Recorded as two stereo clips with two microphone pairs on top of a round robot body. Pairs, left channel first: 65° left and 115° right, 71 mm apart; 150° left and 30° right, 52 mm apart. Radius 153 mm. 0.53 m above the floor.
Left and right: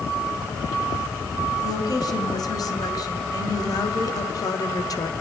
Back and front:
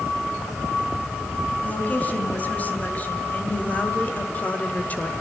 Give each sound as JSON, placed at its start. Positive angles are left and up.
{"t": 1.6, "sound": "a woman speaking", "azimuth_deg": 90, "distance_m": 4.0}